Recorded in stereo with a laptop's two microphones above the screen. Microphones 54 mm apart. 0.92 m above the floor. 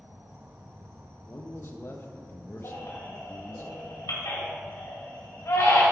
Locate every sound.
0.0 s an insect: 50° right (ahead or behind), 0.9 m
1.3 s a man speaking: 50° left (ahead or behind), 0.5 m
2.6 s a baby crying: 85° left, 2 m